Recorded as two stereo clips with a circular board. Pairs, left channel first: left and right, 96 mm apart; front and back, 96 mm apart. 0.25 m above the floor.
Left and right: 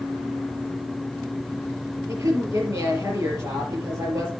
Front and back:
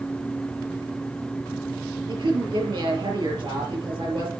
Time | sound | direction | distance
2.1 | a woman speaking | 150° right | 5.5 m